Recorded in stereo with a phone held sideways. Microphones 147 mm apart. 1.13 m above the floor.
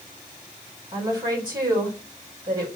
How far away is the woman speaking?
About 4.5 m.